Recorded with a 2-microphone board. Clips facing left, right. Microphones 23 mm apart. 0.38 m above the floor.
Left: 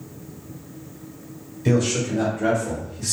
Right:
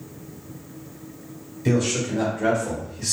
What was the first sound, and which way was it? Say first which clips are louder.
A man speaking: left 1 dB; 5° right (ahead or behind).